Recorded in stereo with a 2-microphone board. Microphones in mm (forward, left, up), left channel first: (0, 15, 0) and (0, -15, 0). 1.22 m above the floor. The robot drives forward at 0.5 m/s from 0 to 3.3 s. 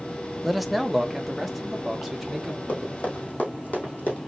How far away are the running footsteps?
About 3 m.